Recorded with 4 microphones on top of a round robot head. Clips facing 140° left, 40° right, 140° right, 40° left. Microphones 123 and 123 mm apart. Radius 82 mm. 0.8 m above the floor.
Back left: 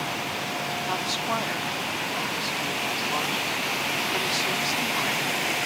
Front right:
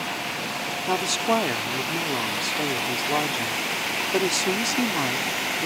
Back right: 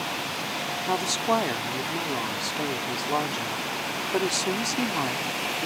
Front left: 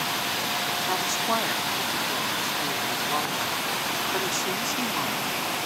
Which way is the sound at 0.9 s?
80° right.